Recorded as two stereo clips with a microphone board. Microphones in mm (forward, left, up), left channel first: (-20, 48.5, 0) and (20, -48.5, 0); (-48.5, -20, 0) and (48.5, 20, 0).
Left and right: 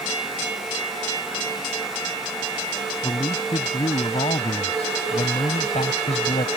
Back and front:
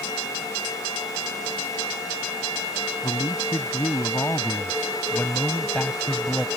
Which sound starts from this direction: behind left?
A man speaking, at 3.0 s.